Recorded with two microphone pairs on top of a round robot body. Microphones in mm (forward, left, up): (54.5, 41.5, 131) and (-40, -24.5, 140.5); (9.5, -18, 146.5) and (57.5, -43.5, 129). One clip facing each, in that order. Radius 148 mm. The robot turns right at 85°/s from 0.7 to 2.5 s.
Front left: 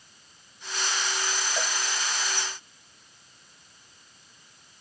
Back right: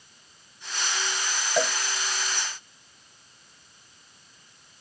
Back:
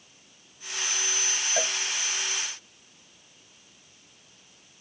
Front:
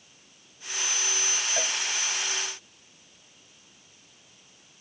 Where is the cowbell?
135° right; by 1.8 s 120° right.